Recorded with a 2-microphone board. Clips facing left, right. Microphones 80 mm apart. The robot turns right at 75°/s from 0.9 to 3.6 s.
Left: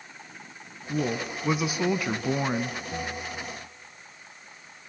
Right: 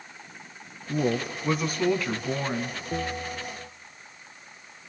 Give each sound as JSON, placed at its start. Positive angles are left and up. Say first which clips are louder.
{"t": 0.9, "sound": "a woman speaking", "louder": "right 2 dB", "side_deg": -10, "distance_m": 1.0}
{"t": 2.9, "sound": "a bell", "louder": "right 3 dB", "azimuth_deg": -140, "distance_m": 1.3}